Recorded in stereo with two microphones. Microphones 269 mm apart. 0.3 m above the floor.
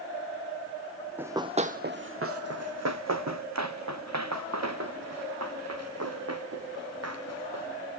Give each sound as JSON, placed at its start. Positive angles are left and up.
{"t": 1.2, "sound": "running footsteps", "side_deg": -5, "distance_m": 0.7}